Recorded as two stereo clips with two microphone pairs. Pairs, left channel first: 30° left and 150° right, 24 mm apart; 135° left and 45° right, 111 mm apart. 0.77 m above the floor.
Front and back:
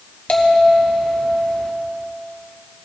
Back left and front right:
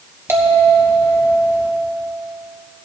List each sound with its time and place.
0.3 s a bell: 15° left, 1.3 m